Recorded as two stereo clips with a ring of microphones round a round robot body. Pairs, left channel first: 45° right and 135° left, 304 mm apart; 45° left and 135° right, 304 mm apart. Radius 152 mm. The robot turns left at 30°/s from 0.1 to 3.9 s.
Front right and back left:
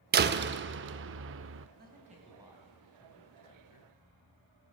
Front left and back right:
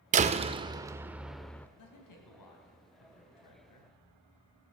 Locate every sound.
0.1 s a door slam: 175° left, 0.5 m; by 1.7 s 125° left, 0.5 m
1.8 s a man speaking: 80° left, 3 m; by 3.9 s 15° left, 3 m